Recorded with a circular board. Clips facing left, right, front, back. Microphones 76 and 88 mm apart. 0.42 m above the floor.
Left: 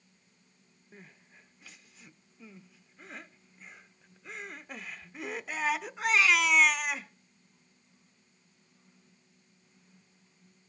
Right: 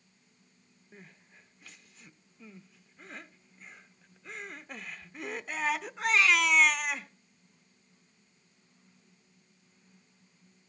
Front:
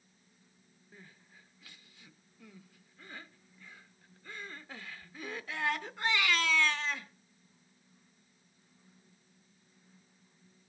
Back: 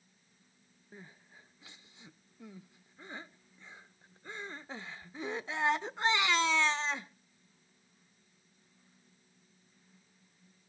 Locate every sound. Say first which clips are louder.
0.9 s crying: even, back 4 dB; 175° left, 0.7 m